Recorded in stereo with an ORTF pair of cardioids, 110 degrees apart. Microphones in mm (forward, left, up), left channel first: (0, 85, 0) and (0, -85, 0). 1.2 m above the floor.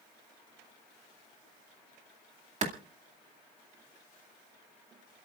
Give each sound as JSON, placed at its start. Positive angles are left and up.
{"t": 2.6, "sound": "a clap", "azimuth_deg": -40, "distance_m": 2.0}